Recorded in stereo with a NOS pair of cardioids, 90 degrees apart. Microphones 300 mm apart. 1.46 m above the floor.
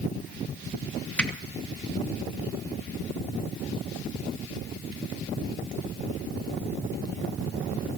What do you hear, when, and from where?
1.2 s a finger snap: 5° left, 2.5 m